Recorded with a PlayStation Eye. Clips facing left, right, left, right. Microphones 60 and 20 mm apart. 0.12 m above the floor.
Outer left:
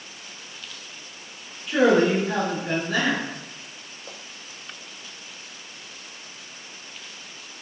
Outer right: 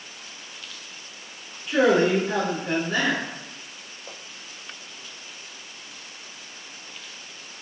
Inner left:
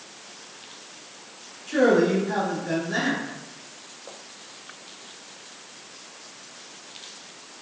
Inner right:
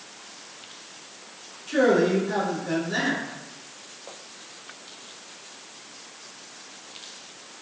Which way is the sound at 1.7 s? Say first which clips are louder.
Outer left 1 dB, inner left 1 dB; centre (ahead or behind).